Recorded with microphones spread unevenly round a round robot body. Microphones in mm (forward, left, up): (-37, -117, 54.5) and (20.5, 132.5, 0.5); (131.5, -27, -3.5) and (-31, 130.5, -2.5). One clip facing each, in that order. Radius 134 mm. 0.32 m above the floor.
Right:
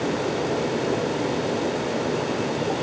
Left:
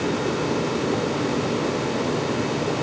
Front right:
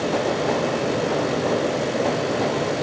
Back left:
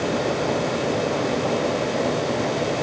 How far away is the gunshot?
I don't hear a gunshot.